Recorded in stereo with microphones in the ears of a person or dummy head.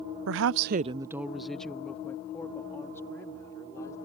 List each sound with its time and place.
0.3 s a woman speaking: 65° right (ahead or behind); by 4.0 s 20° left (ahead or behind)